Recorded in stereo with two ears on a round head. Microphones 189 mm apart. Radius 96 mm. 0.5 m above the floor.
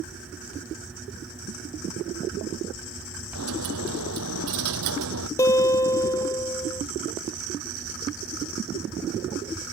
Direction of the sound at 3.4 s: 80° right.